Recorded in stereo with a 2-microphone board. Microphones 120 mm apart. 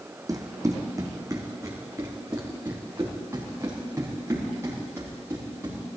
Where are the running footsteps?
30° right (ahead or behind), 1.5 m; by 5.8 s 20° right (ahead or behind), 6 m.